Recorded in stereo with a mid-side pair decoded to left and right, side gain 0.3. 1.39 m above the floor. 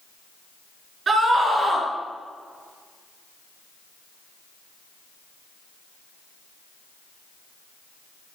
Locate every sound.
1.1 s a scream: 65° right, 4 m